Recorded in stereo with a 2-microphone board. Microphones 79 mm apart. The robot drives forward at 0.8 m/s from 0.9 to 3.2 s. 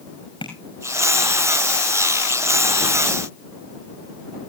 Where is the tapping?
75° left (ahead or behind), 5.5 m.